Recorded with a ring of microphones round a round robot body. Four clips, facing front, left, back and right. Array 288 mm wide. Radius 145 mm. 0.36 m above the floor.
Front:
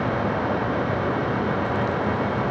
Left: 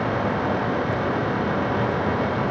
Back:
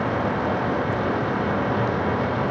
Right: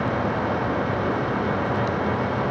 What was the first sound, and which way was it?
Only background noise.